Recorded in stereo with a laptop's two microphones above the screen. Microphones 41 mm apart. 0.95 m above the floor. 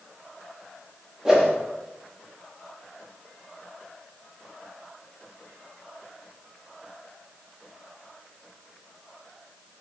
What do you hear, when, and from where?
1.2 s a whoosh: 15° right (ahead or behind), 0.9 m